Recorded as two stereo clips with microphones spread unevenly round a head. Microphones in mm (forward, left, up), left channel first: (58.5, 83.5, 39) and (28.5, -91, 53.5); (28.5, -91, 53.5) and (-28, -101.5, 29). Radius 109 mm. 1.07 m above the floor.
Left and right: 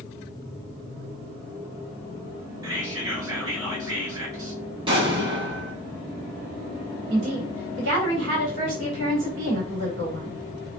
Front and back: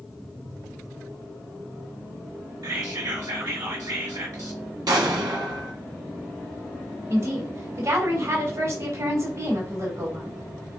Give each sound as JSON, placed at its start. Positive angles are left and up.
{"t": 2.6, "sound": "whispering", "azimuth_deg": -170, "distance_m": 4.0}
{"t": 4.9, "sound": "an explosion", "azimuth_deg": -160, "distance_m": 1.5}
{"t": 7.1, "sound": "a woman speaking", "azimuth_deg": -150, "distance_m": 3.0}